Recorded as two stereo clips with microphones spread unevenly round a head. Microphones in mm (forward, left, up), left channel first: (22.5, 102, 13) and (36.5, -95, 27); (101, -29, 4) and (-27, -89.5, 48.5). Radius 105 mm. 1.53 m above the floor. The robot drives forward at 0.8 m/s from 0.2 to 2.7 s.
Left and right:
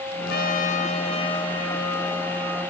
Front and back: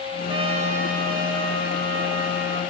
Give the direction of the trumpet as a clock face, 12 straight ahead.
8 o'clock.